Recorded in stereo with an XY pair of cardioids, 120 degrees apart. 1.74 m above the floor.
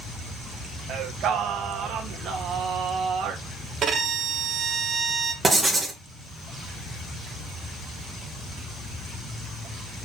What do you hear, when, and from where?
0.9 s singing: 65° right, 1.5 m
3.8 s a violin: 45° right, 1.4 m
5.4 s writing: 20° right, 1.9 m